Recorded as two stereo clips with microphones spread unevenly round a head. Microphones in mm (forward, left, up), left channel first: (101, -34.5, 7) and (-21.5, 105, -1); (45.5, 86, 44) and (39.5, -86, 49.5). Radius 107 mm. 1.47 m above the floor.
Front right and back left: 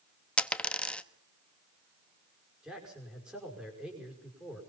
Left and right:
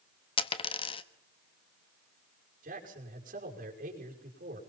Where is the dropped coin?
30° left, 1.1 m.